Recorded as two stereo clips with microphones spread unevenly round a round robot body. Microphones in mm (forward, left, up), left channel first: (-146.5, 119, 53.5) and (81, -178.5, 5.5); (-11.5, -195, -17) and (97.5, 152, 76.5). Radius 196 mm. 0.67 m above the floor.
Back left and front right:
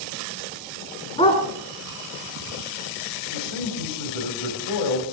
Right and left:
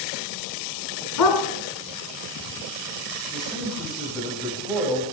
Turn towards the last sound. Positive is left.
turn(degrees=165)